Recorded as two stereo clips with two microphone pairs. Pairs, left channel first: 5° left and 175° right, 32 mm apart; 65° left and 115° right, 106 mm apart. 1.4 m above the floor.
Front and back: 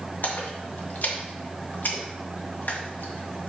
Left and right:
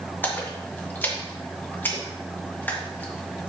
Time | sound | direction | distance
0.2 | a splash | 10° right | 1.6 m